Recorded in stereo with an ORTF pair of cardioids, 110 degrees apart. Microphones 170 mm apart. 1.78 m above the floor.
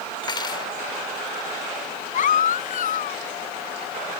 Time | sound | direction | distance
0.2 | cutlery clinking | 30° left | ?
2.1 | a baby crying | 55° left | ?